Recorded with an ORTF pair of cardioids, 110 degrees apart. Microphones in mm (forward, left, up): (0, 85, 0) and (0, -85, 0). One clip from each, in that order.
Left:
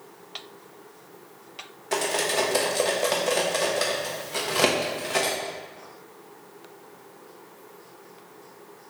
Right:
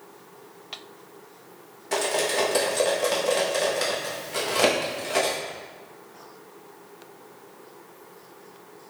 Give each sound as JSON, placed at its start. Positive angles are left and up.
{"t": 1.9, "sound": "cutlery clinking", "azimuth_deg": 5, "distance_m": 0.9}